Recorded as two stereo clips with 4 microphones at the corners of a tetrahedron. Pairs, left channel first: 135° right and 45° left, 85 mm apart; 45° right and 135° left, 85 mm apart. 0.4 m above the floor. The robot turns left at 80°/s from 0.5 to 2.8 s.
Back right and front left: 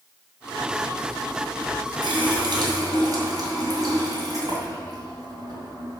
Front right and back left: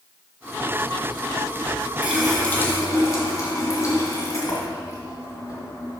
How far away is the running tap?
About 2.5 m.